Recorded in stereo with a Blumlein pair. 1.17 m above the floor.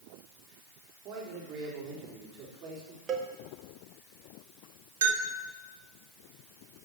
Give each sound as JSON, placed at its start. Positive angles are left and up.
{"t": 1.1, "sound": "a man speaking", "azimuth_deg": -30, "distance_m": 3.5}
{"t": 3.1, "sound": "a cowbell", "azimuth_deg": -30, "distance_m": 1.5}
{"t": 5.0, "sound": "a bell", "azimuth_deg": -60, "distance_m": 1.8}